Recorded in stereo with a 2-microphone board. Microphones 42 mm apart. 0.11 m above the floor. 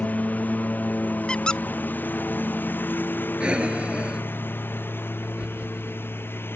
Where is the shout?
I don't hear a shout.